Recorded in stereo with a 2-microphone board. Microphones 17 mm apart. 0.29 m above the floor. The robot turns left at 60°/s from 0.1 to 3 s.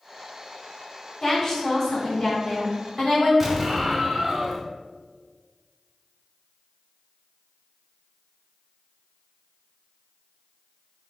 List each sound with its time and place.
1.2 s a woman speaking: 20° left (ahead or behind), 1.5 m; by 3.3 s 15° left (ahead or behind), 1.5 m
3.4 s an explosion: 10° right (ahead or behind), 0.7 m